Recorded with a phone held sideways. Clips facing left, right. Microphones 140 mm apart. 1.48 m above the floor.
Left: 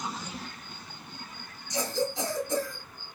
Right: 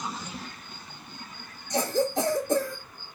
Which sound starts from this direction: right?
A cough, at 1.7 s.